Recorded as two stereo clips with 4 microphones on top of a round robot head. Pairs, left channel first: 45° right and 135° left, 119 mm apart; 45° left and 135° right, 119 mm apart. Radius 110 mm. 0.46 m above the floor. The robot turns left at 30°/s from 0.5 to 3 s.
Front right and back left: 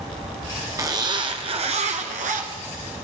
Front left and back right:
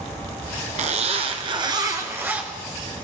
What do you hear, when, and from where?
0.8 s a zipper: 160° right, 1.2 m; by 2.5 s 145° left, 1.2 m